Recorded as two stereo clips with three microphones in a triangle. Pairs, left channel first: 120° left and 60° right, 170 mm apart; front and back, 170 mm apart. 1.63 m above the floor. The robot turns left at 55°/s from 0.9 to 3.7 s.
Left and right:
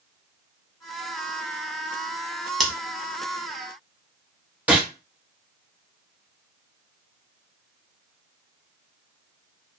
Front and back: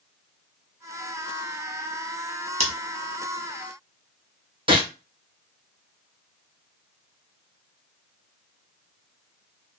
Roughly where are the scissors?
Behind right.